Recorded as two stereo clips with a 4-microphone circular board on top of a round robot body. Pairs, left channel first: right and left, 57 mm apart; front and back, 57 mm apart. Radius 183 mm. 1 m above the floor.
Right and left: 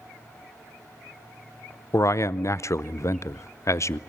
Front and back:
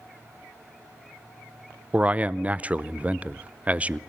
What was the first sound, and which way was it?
A man speaking, 115° right.